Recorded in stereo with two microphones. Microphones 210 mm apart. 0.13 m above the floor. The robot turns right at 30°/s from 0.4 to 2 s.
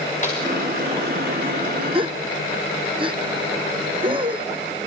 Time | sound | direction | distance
0.2 | a snare drum | 35° left (ahead or behind) | 7.5 m
1.9 | a gasp | 25° right (ahead or behind) | 1.8 m